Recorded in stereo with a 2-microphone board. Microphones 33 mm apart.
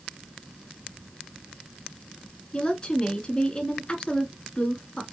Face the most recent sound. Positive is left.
turn(degrees=30)  # may be behind; listen again after turning